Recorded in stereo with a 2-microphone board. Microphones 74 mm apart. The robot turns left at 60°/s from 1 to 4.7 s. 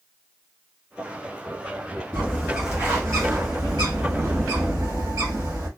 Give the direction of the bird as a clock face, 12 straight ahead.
11 o'clock.